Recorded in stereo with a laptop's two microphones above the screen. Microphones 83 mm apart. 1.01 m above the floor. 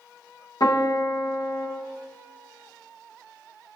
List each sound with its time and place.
0.6 s a piano: 50° left (ahead or behind), 0.8 m